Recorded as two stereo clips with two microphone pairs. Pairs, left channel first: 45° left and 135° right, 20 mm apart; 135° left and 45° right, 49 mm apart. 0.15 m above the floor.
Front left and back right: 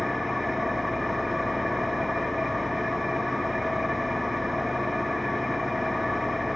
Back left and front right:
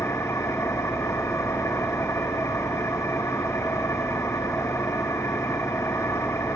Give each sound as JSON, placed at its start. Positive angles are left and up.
{"t": 0.0, "sound": "an engine running", "azimuth_deg": 140, "distance_m": 4.5}